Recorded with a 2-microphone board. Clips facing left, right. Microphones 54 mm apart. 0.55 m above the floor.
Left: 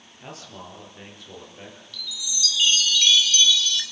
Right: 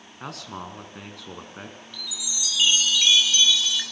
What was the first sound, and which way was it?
A man speaking, 75° right (ahead or behind).